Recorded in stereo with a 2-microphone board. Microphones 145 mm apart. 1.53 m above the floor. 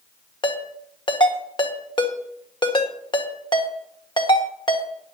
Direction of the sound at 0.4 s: 30° left (ahead or behind).